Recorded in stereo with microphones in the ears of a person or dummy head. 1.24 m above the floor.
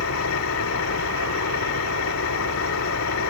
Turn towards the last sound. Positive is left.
turn(degrees=80)